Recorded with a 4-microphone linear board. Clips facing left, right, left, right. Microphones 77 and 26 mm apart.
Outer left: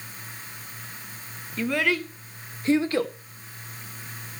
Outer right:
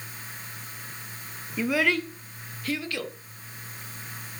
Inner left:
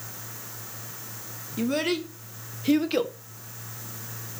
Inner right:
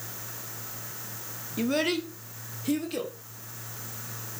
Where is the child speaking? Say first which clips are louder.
Even, inner left 1 dB; 10° right (ahead or behind), 1.0 m; by 3.1 s 40° left (ahead or behind), 1.2 m.